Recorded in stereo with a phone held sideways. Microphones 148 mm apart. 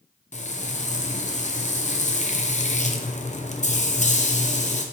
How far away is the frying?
About 0.7 m.